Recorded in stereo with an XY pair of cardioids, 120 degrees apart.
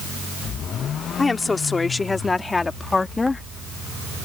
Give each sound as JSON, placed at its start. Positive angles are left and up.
{"t": 1.2, "sound": "a woman speaking", "azimuth_deg": 20}